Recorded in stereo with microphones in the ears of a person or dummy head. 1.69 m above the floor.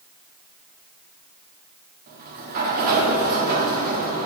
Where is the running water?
I don't hear running water.